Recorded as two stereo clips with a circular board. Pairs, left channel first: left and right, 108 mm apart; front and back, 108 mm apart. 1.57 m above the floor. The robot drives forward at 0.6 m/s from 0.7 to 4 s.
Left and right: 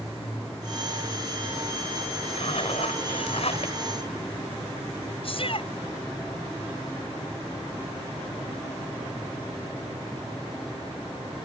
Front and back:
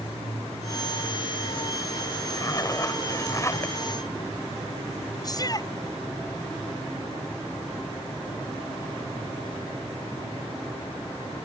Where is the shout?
55° left.